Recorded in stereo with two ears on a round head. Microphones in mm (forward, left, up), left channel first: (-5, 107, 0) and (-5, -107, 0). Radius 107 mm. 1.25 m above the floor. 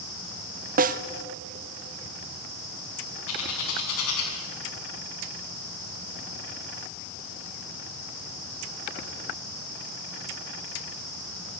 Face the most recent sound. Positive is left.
turn(degrees=70)  # may be behind; listen again after turning